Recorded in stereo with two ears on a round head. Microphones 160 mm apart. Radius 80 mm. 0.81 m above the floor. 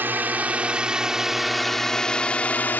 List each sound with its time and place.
0.0 s a drone: 10° right (ahead or behind); by 2.8 s 10° left (ahead or behind)